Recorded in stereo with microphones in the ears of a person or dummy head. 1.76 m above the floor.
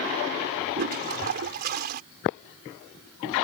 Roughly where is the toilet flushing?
Right.